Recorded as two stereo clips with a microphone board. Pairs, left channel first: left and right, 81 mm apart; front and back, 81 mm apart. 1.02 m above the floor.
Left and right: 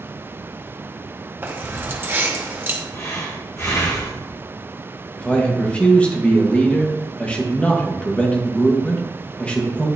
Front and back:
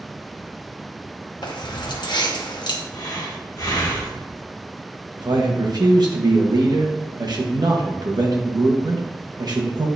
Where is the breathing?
40° left, 1.6 m.